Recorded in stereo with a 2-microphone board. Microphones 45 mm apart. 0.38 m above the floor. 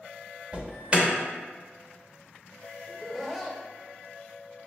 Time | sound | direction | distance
0.5 | an alarm | 25° right (ahead or behind) | 0.7 m
2.9 | laughter | 5° right (ahead or behind) | 0.9 m